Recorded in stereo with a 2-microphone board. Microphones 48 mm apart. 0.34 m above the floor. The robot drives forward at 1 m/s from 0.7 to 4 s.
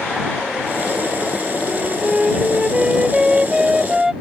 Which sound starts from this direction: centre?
A flute, at 1.7 s.